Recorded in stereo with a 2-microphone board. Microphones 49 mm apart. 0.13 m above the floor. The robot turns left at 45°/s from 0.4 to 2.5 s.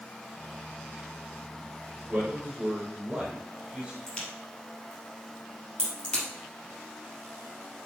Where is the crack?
25° left (ahead or behind), 3 m.